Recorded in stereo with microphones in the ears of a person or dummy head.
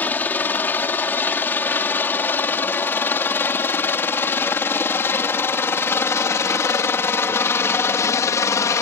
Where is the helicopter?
10° left (ahead or behind); by 8.8 s 15° left (ahead or behind).